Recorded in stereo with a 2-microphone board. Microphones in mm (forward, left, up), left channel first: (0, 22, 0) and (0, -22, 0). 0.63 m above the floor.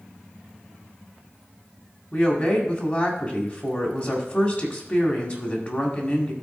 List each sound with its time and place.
2.1 s a woman speaking: 35° left (ahead or behind), 1.9 m